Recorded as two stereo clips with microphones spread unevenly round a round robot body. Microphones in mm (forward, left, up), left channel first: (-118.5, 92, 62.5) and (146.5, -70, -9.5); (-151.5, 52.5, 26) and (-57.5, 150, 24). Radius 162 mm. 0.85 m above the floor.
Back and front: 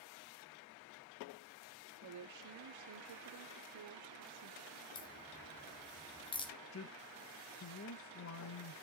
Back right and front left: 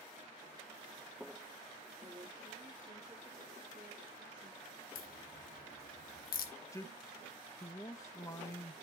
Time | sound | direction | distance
2.0 | a woman speaking | 20° right | 1.4 m
5.0 | a crack | 135° right | 0.9 m
6.7 | a man speaking | 175° left | 0.9 m